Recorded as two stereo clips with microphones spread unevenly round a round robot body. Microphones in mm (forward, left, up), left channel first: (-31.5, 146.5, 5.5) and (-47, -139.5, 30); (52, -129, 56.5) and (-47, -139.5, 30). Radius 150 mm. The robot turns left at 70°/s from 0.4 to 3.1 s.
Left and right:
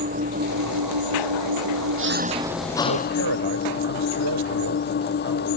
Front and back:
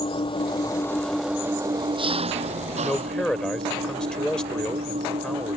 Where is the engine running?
30° right; by 5.6 s 145° left.